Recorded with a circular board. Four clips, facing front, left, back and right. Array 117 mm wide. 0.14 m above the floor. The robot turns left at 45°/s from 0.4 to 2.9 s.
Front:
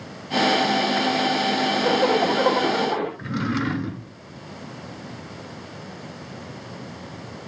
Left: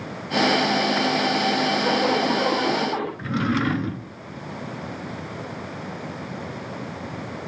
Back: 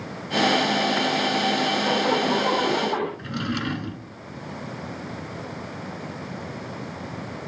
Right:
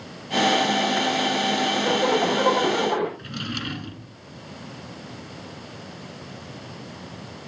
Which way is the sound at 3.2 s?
70° left.